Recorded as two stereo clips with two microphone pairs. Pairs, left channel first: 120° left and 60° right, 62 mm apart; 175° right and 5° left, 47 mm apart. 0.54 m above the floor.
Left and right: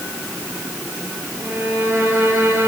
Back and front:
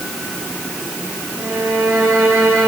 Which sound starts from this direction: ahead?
A violin, at 1.4 s.